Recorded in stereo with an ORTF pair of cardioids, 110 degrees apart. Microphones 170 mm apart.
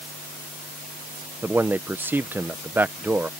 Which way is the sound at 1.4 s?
10° right.